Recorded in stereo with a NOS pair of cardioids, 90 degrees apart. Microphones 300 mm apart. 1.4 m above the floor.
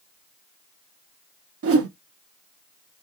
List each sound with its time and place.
1.6 s a whoosh: 50° right, 0.9 m